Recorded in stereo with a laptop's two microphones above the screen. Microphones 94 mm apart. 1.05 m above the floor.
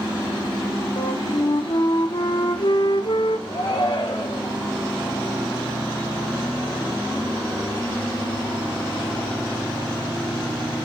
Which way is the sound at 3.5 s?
70° left (ahead or behind).